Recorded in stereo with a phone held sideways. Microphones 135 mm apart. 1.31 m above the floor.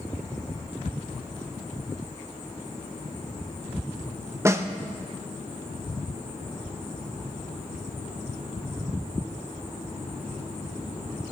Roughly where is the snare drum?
Centre.